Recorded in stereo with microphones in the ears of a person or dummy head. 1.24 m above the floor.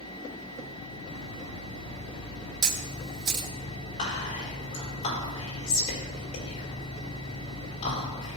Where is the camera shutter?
25° right (ahead or behind), 1.4 m.